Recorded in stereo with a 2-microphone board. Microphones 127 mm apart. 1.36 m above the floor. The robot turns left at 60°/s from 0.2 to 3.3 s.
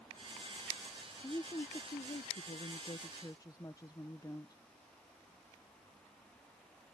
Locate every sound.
1.2 s a woman speaking: 155° left; by 4.6 s 30° left